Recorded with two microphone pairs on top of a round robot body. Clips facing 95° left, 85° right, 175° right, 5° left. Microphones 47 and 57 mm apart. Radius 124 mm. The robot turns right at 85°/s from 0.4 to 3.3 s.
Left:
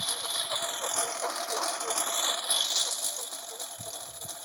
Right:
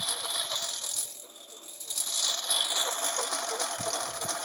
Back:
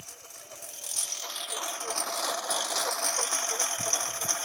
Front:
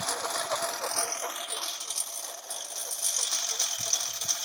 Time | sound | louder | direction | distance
0.0 | a lawn mower | even, front 18 dB | 5° left | ?